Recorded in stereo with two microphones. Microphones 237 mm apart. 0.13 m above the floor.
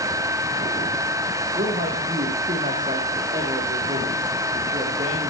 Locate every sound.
1.6 s a man speaking: 30° right (ahead or behind), 6.5 m